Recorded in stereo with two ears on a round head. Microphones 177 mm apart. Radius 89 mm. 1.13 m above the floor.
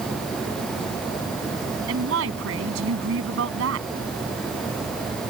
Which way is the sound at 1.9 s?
75° right (ahead or behind).